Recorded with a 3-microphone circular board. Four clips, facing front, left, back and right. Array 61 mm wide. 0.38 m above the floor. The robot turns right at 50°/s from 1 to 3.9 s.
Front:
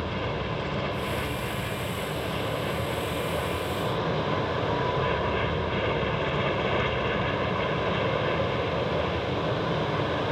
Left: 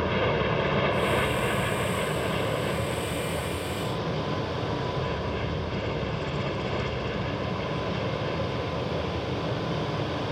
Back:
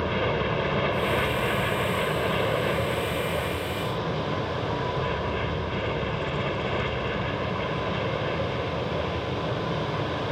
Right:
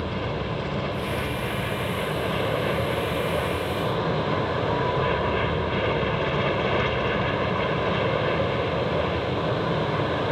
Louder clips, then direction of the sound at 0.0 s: Left 4 dB, back 5 dB; 135° left.